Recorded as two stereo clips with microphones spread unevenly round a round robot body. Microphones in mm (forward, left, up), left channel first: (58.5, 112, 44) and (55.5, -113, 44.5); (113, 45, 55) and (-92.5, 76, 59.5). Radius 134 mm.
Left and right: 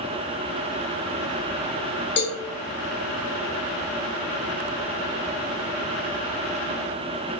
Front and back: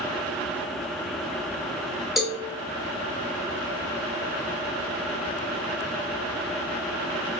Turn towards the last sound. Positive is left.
turn(degrees=80)